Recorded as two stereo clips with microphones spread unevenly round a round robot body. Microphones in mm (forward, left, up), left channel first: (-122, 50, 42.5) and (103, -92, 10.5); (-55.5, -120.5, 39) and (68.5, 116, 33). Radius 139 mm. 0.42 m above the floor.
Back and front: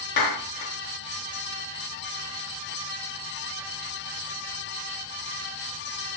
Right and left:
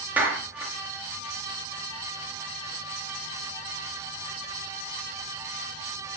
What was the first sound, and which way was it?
A clap, 145° left.